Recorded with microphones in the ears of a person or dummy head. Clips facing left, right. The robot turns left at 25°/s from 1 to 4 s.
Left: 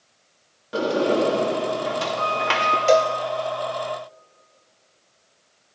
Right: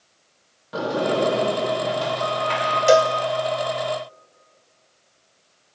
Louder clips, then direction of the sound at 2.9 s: Right 2 dB; 15° right (ahead or behind).